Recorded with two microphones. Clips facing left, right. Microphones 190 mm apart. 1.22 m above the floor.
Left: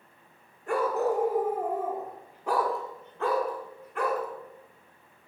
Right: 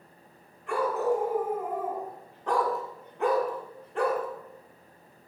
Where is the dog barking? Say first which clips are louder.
Even; 45° left (ahead or behind), 1.5 m; by 4.3 s 35° right (ahead or behind), 1.4 m.